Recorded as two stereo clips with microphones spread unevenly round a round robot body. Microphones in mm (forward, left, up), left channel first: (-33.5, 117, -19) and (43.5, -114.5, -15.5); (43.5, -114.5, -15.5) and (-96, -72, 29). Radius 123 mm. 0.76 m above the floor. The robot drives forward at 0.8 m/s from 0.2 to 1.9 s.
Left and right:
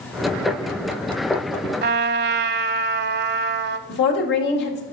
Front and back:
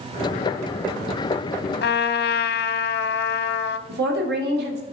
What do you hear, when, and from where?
1.8 s a trumpet: 20° right, 0.6 m; by 3.8 s 25° right, 0.5 m
3.9 s a woman speaking: 155° left, 1.8 m